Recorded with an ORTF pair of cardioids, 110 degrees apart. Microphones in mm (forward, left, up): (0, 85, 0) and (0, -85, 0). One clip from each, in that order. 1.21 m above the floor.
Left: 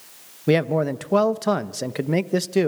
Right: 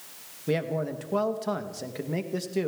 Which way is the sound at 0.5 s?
45° left.